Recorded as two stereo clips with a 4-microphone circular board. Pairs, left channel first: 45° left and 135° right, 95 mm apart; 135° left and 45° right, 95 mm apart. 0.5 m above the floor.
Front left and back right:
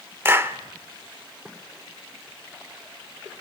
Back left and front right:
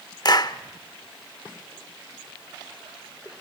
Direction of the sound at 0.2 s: 165° left.